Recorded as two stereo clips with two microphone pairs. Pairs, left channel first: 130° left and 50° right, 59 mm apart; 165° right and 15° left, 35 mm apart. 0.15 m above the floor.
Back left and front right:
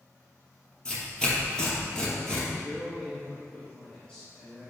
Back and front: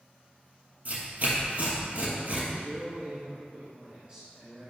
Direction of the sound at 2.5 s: 65° left.